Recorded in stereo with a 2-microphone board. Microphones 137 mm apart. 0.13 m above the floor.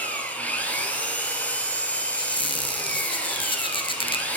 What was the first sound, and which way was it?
An engine running, 10° left (ahead or behind).